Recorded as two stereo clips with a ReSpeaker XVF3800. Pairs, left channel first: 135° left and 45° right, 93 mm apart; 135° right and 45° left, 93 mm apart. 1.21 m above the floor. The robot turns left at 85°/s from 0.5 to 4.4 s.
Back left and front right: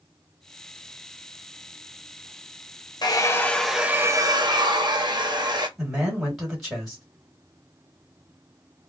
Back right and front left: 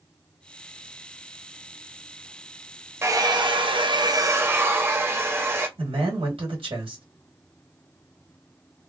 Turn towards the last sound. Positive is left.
turn(degrees=45)